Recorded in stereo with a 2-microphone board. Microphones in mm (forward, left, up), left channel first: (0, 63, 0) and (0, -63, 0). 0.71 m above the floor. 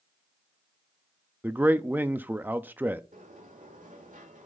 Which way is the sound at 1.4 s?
15° right (ahead or behind).